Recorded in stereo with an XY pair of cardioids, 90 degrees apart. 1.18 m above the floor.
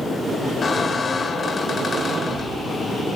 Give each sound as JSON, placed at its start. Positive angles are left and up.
{"t": 0.6, "sound": "a squeak", "azimuth_deg": 50, "distance_m": 2.0}